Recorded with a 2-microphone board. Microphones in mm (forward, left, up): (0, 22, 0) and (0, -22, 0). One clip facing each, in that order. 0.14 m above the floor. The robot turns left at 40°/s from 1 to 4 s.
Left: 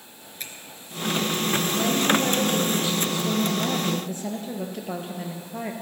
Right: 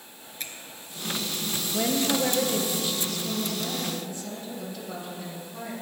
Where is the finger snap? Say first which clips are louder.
Even; centre (ahead or behind), 1.6 m.